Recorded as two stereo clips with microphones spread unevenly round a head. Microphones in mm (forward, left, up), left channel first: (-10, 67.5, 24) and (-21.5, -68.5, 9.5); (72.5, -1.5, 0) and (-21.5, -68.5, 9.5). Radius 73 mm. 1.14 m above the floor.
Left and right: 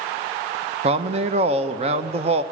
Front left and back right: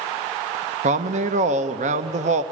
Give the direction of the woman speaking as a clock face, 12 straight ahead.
4 o'clock.